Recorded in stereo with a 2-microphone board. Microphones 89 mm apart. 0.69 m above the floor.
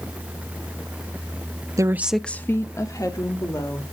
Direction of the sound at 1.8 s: 35° right (ahead or behind).